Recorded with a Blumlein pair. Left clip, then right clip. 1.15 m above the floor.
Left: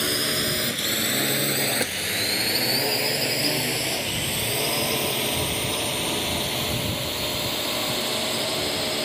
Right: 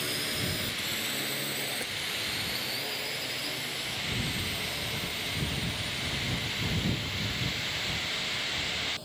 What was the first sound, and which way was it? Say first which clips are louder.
A drone: left 8 dB; 65° left.